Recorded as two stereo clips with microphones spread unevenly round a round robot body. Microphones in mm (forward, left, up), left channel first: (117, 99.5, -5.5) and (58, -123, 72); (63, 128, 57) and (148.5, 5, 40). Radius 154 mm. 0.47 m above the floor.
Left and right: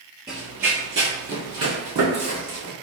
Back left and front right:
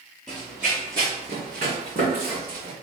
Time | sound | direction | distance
0.3 | running footsteps | 160° right | 0.6 m